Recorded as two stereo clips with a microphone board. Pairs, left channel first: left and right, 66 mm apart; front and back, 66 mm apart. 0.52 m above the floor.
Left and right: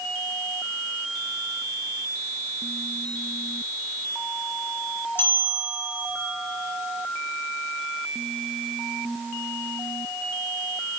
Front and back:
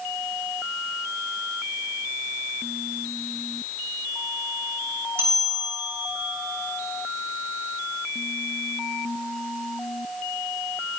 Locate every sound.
5.2 s a bell: 140° left, 3 m